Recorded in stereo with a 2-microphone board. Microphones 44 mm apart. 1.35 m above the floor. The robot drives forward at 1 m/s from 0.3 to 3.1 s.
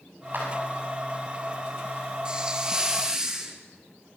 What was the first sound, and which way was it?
A clap, 45° right (ahead or behind).